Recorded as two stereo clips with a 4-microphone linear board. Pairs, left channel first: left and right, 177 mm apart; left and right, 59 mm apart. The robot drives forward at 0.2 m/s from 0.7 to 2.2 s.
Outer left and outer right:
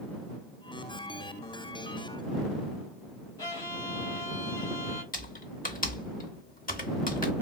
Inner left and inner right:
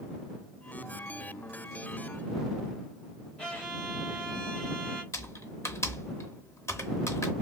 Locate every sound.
3.4 s a violin: 20° left (ahead or behind), 1.8 m
5.1 s typing on a keyboard: 50° left (ahead or behind), 0.7 m